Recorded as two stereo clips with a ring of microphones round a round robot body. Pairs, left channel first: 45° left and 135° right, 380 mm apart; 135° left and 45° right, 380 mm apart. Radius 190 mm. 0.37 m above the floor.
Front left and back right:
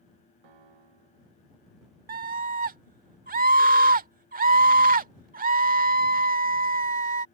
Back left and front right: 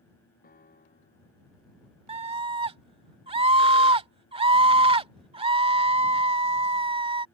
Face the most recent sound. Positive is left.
turn(degrees=-100)